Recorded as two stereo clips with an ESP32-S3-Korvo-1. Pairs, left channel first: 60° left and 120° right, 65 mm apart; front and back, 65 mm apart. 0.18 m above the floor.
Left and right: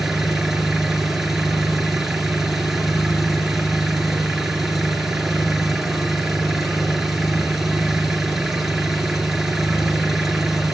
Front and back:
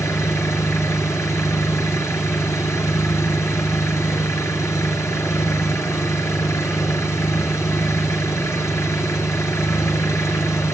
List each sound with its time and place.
0.0 s an engine running: 35° right, 2 m